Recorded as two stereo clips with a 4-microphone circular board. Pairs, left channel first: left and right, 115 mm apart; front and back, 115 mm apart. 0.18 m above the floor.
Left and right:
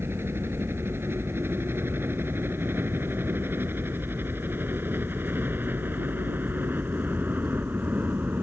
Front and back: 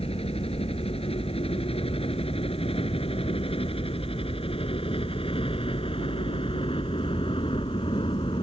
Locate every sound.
0.0 s a helicopter: 20° right